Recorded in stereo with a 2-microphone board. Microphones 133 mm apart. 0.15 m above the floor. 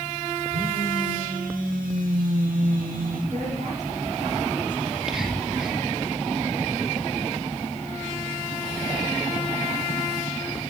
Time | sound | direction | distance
0.5 | a phone buzzing | 85° right | 5 m
3.3 | a woman speaking | 60° right (ahead or behind) | 4 m
4.8 | whispering | 5° right (ahead or behind) | 3.5 m